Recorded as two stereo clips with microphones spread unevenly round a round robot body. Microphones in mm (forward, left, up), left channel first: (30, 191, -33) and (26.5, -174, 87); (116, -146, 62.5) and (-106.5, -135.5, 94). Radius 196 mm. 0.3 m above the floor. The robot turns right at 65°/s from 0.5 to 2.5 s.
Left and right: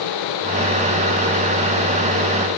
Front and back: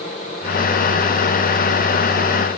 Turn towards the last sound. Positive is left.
No sound to turn to.